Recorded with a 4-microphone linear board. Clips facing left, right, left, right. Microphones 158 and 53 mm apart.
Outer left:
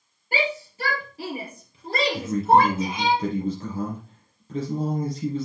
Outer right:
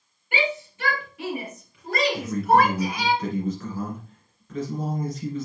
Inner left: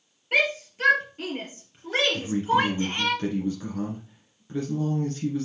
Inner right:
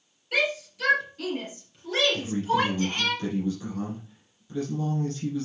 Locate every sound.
0.3 s a shout: 35° left (ahead or behind), 3.5 m; by 3.1 s 20° left (ahead or behind), 2 m
2.1 s a man speaking: 30° left (ahead or behind), 2 m